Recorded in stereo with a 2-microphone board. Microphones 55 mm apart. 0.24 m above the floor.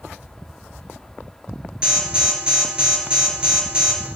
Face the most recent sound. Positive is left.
turn(degrees=-20)  # may be behind; listen again after turning